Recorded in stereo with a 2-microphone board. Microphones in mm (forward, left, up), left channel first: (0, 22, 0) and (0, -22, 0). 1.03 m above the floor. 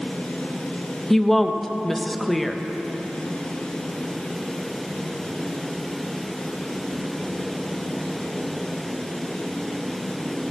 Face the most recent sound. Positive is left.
turn(degrees=5)  # may be behind; listen again after turning